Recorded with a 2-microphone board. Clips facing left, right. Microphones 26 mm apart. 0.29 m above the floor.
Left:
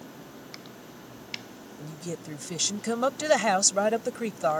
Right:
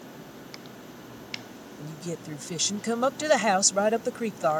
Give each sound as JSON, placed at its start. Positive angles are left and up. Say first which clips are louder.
{"t": 1.8, "sound": "a woman speaking", "louder": "right 1 dB", "side_deg": -5}